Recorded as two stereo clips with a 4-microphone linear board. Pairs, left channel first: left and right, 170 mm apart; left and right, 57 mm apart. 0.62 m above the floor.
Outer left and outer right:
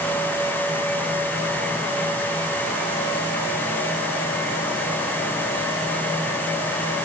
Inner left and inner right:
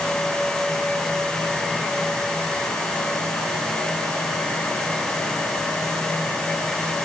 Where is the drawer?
No drawer in this recording.